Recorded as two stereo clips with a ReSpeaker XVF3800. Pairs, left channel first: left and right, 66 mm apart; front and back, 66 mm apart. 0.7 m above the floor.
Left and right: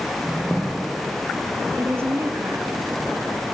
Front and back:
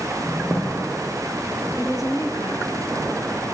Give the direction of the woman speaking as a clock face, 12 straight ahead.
1 o'clock.